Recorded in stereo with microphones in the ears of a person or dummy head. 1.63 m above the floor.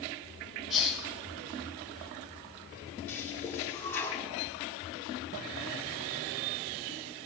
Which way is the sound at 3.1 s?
15° left (ahead or behind).